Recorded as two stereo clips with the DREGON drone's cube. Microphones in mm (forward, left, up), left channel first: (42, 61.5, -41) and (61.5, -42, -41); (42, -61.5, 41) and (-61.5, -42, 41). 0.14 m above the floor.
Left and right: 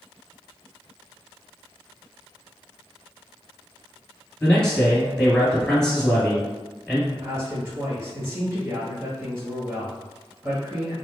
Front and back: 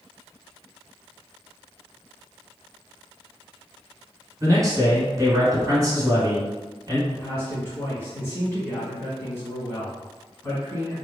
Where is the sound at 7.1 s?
50° right, 1.5 m.